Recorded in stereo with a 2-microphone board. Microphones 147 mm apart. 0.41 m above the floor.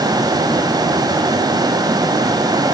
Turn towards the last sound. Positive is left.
No sound to turn to.